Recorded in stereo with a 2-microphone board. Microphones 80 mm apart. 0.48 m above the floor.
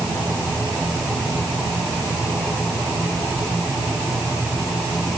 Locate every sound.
Only background noise.